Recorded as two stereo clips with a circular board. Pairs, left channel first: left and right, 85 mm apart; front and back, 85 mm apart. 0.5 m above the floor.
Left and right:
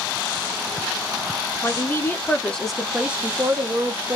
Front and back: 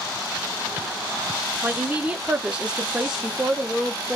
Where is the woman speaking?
115° left, 1.0 m; by 4.2 s 85° right, 1.0 m.